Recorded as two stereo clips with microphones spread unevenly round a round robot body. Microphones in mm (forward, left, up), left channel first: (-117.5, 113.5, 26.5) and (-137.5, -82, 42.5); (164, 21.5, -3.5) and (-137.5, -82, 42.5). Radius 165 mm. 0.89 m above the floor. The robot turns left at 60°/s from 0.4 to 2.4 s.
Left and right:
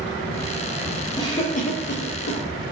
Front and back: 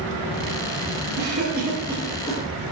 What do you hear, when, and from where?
1.2 s a cough: 155° left, 1.1 m; by 2.4 s 85° left, 1.1 m